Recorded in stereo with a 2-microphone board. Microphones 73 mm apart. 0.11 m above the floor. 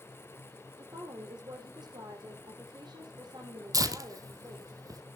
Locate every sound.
0.8 s a woman speaking: 75° right (ahead or behind), 5 m
3.7 s tearing paper: 55° right (ahead or behind), 1.4 m